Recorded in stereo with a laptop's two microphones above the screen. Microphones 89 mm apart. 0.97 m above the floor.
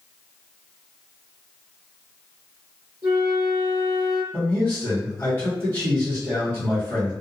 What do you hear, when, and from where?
3.0 s a flute: 35° right (ahead or behind), 0.9 m
4.3 s a man speaking: 30° left (ahead or behind), 1.5 m